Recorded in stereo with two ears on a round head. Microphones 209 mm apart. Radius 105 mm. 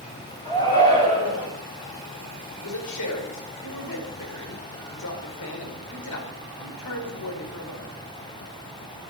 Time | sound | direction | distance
0.5 | a shout | 15° left (ahead or behind) | 6.5 m
2.6 | a man speaking | 80° left | 5 m